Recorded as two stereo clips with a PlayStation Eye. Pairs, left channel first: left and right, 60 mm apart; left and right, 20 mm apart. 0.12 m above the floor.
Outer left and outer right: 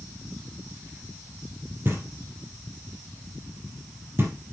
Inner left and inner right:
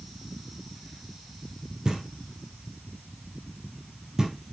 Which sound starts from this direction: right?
Knocking, at 1.9 s.